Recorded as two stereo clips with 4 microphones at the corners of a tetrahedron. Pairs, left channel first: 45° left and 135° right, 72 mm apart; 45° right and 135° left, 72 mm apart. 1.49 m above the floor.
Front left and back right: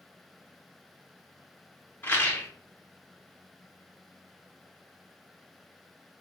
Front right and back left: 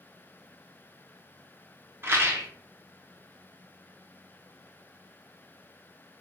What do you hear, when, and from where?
2.0 s a rattle: 95° left, 0.7 m